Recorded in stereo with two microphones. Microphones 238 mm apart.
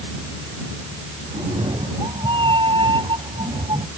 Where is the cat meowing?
20° right (ahead or behind).